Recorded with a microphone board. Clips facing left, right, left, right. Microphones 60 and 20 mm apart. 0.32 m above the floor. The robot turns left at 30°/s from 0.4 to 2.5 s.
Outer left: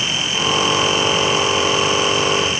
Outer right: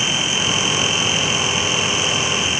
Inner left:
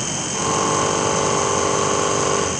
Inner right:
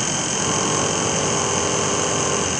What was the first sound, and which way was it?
Only background noise.